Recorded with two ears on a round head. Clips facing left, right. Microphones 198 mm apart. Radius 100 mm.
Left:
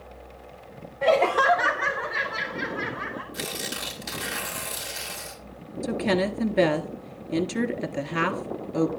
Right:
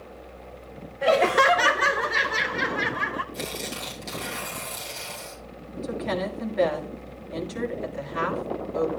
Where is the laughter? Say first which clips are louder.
Right 1 dB; 5° right (ahead or behind), 0.5 m; by 3.2 s 70° right (ahead or behind), 1.3 m.